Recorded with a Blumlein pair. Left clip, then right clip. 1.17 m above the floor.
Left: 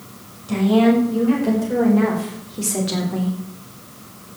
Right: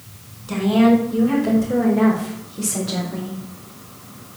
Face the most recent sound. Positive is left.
turn(degrees=20)